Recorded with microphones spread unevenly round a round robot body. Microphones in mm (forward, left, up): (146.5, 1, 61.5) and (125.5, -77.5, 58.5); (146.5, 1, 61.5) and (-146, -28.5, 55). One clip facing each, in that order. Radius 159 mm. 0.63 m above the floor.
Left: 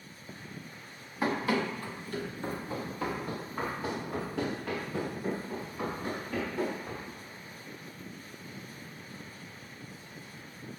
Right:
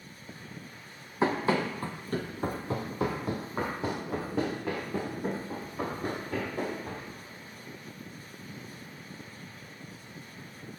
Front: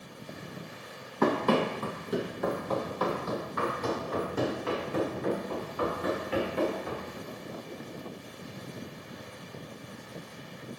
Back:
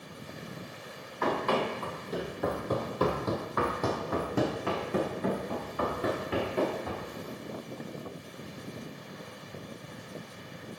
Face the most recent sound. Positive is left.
turn(degrees=-170)